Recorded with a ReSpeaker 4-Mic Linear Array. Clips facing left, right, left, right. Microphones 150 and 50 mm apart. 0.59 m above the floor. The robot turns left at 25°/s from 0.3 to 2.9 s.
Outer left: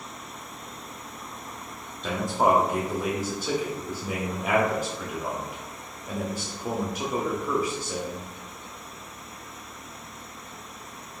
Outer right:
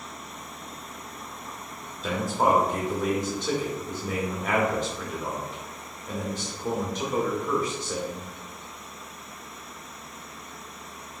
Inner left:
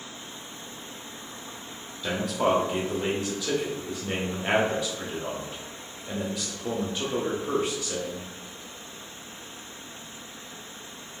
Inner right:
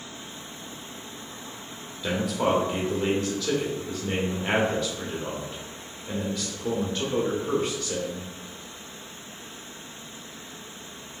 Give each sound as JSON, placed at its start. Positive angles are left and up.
{"t": 2.0, "sound": "a man speaking", "side_deg": -5, "distance_m": 0.7}